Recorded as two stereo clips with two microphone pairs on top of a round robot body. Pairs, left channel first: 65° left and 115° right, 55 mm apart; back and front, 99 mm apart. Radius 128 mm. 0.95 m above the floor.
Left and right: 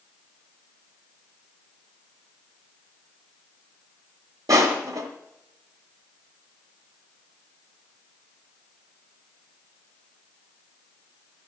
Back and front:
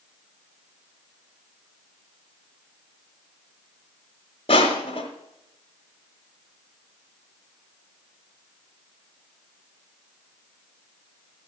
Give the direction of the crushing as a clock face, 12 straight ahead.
5 o'clock.